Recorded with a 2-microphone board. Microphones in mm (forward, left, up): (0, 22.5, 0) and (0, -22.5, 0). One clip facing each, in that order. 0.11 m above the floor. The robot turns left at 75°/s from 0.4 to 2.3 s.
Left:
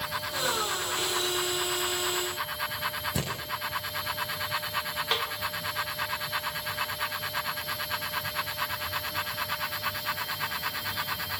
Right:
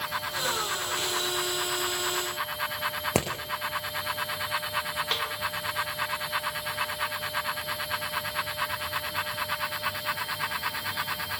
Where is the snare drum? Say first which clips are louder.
Left 2 dB; 5° left (ahead or behind), 6 m.